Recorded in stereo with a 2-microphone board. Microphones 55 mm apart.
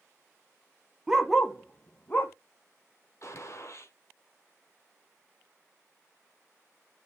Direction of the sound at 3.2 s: 55° left (ahead or behind).